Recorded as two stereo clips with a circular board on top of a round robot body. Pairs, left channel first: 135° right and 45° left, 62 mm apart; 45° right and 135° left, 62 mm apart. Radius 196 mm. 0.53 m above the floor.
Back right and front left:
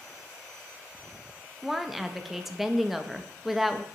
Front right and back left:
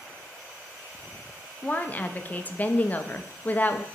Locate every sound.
1.6 s a woman speaking: 35° right, 0.6 m